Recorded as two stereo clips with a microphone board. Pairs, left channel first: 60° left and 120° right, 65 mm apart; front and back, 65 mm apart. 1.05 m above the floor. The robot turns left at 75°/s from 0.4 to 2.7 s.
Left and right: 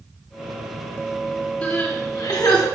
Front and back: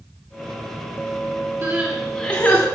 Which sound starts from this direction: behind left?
Crying, at 1.6 s.